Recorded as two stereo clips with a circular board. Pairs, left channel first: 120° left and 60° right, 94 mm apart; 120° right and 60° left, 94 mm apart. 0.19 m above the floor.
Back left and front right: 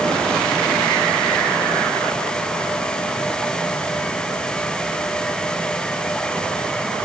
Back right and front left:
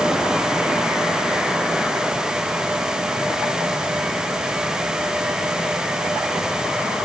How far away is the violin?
No violin in this recording.